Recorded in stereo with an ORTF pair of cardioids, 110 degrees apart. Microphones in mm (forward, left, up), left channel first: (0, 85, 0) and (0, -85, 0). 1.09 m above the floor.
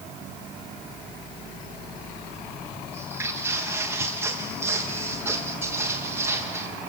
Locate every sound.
2.9 s footsteps: 15° right, 7 m